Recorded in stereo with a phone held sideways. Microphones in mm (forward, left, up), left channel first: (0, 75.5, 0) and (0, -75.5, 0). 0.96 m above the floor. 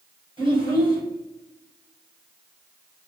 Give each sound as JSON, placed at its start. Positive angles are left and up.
{"t": 0.4, "sound": "a child speaking", "side_deg": -30, "distance_m": 4.0}